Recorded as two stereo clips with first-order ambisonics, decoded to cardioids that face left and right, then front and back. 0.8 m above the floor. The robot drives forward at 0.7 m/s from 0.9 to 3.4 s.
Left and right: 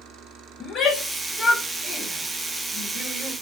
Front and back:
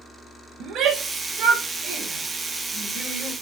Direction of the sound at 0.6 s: 145° left.